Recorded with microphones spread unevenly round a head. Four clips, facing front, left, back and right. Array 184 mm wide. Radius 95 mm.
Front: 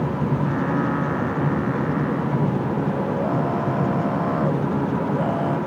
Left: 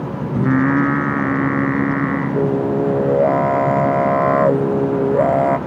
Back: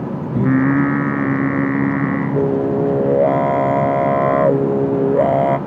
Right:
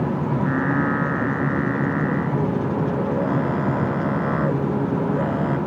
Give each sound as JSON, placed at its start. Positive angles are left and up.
{"t": 0.3, "sound": "singing", "azimuth_deg": 145}